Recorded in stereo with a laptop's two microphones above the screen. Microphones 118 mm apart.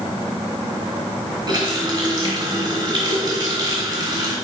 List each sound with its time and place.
1.5 s a running tap: 40° right (ahead or behind), 2.5 m